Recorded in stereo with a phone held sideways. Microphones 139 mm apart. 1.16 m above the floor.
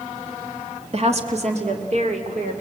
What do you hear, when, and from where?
0.9 s a woman speaking: 45° right (ahead or behind), 2.0 m; by 2.6 s 55° right (ahead or behind), 4 m